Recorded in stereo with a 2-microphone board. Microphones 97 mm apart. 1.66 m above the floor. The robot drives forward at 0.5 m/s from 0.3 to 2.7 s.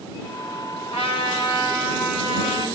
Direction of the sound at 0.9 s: 75° left (ahead or behind).